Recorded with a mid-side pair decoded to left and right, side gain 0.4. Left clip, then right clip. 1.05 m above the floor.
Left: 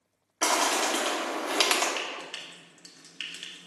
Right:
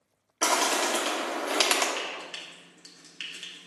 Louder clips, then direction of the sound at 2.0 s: Even; 25° left.